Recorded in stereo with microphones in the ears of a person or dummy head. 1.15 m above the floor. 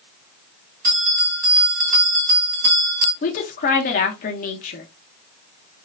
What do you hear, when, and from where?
0.8 s a bell: 45° right (ahead or behind), 1.8 m
3.2 s a woman speaking: 45° left (ahead or behind), 0.7 m